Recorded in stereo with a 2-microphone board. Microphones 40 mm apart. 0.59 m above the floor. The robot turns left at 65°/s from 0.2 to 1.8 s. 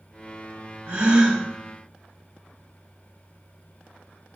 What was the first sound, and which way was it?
A gasp, 135° right.